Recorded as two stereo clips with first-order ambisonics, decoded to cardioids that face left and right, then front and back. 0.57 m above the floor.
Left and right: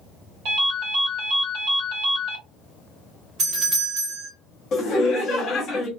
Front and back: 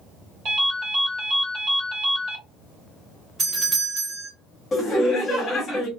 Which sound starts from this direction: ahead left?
Laughter, at 4.7 s.